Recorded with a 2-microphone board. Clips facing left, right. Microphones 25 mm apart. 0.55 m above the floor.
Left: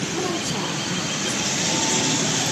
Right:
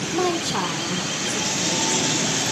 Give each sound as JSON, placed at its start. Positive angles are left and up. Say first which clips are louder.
{"t": 0.1, "sound": "a woman speaking", "louder": "right 6 dB", "side_deg": -45, "distance_m": 1.8}